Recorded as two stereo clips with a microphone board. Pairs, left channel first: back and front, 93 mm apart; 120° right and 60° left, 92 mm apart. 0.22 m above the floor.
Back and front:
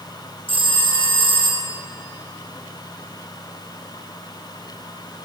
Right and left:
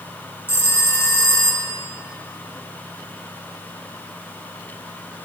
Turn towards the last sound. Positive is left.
turn(degrees=175)